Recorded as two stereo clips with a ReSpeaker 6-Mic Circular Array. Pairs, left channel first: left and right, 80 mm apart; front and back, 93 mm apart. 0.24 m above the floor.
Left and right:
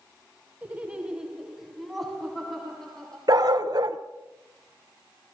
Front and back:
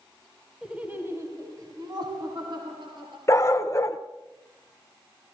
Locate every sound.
0.6 s laughter: 115° right, 1.5 m; by 3.2 s 170° left, 3.5 m
3.3 s a dog barking: 55° right, 1.0 m